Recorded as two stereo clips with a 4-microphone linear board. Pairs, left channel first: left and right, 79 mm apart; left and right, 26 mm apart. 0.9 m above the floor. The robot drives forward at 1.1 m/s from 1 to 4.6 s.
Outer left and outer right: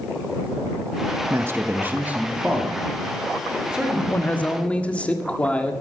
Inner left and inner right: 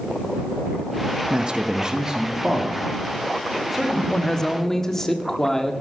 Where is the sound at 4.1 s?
25° left (ahead or behind), 1.0 m; by 5.7 s 15° left (ahead or behind), 1.5 m.